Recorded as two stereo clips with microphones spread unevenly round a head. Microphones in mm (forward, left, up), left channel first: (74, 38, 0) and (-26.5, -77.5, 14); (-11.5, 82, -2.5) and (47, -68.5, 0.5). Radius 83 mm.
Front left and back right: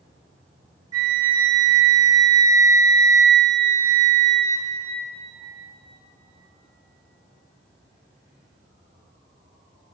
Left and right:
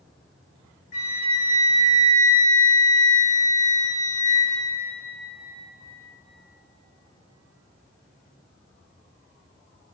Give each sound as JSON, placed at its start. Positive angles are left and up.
{"t": 0.9, "sound": "a flute", "azimuth_deg": 160, "distance_m": 3.5}